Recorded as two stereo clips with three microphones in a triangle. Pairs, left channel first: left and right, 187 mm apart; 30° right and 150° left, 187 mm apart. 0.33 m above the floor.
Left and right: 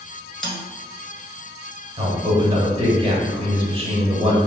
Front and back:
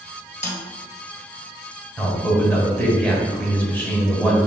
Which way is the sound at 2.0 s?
105° right.